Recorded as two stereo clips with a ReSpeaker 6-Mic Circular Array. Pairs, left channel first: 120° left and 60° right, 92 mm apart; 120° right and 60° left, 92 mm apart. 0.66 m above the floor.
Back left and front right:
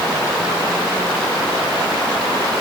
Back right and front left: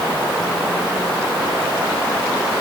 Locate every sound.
Only background noise.